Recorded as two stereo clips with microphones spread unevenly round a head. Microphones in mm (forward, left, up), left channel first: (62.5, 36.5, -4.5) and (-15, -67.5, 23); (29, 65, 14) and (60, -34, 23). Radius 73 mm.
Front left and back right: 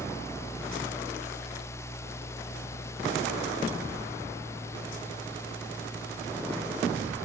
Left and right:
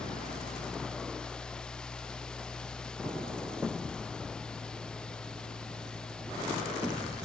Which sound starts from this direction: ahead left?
A fan, at 0.0 s.